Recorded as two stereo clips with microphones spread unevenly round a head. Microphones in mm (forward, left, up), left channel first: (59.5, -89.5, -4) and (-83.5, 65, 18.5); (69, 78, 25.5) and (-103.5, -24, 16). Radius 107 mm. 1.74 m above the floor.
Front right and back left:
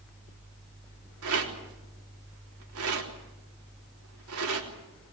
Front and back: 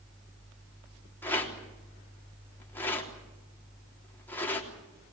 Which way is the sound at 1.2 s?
110° left.